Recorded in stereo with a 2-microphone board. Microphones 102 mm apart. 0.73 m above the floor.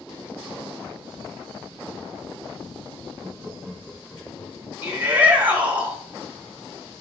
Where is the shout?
15° right (ahead or behind), 1.9 m.